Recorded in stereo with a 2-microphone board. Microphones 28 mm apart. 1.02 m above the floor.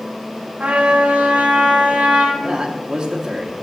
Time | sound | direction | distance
0.6 | a trumpet | 60° right (ahead or behind) | 1.8 m
2.4 | a man speaking | 25° right (ahead or behind) | 1.2 m